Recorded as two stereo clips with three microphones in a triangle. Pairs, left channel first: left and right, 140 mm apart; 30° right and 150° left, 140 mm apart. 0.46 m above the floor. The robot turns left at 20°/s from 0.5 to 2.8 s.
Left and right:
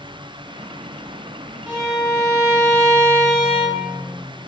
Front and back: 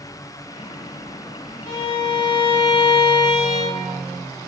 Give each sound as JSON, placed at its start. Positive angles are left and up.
{"t": 1.7, "sound": "a violin", "azimuth_deg": -15, "distance_m": 1.0}